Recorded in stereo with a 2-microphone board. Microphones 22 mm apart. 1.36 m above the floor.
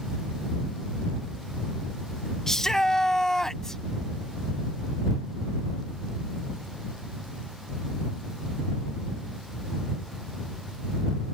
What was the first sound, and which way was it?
A shout, 25° left (ahead or behind).